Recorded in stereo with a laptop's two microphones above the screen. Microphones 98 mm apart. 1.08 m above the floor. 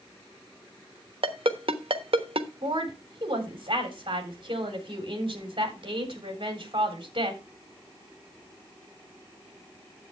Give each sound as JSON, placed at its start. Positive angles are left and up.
{"t": 1.2, "sound": "a ringtone", "side_deg": -70, "distance_m": 1.1}
{"t": 2.6, "sound": "a woman speaking", "side_deg": -60, "distance_m": 3.5}